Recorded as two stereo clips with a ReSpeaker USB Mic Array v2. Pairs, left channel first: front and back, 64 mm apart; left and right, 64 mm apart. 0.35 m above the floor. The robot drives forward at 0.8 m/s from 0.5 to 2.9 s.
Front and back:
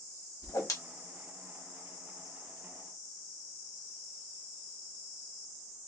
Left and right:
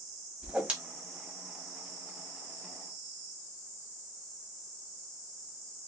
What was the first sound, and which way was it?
A whoosh, 15° right.